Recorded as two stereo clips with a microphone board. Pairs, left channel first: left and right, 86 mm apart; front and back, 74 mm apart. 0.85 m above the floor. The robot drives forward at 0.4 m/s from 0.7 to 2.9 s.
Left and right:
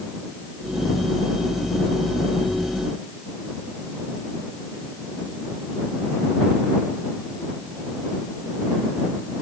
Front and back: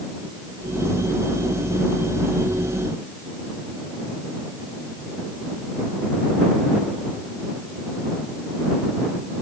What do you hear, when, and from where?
Only background noise.